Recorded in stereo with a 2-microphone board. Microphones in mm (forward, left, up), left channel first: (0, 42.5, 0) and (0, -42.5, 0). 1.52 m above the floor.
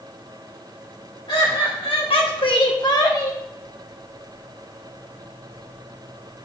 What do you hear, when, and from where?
1.3 s laughter: 70° left (ahead or behind), 3 m; by 3.4 s 30° left (ahead or behind), 1.7 m